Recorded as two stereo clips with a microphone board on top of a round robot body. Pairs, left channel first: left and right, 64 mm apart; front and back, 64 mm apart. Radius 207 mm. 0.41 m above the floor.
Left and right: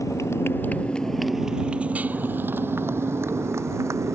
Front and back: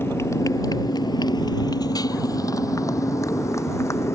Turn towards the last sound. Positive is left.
turn(degrees=-45)